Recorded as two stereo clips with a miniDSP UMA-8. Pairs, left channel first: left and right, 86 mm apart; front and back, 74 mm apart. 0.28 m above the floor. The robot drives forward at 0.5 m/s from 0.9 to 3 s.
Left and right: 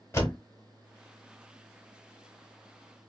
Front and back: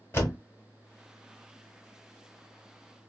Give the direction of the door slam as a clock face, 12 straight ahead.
11 o'clock.